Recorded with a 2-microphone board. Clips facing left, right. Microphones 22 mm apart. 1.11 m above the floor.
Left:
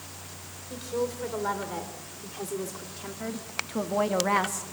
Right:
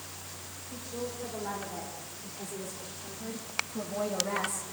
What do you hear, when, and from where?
0.7 s a woman speaking: 85° left, 4.5 m; by 4.7 s 60° left (ahead or behind), 1.2 m